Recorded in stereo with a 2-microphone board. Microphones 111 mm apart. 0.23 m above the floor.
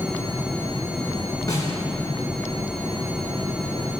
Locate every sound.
1.5 s a snare drum: 30° left (ahead or behind), 2.5 m